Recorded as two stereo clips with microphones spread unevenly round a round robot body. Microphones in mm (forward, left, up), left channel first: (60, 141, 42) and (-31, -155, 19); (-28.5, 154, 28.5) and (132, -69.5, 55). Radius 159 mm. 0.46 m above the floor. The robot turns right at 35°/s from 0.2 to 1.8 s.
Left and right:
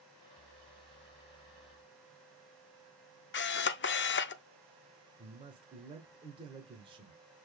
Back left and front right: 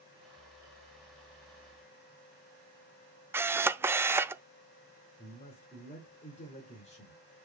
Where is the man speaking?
175° right, 1.3 m.